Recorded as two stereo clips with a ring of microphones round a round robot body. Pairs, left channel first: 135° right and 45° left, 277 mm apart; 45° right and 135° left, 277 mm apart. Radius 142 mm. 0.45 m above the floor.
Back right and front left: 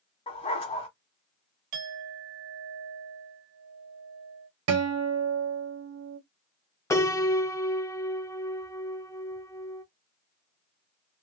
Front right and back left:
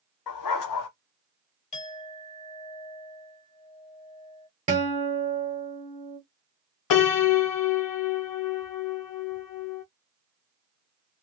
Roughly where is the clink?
Ahead.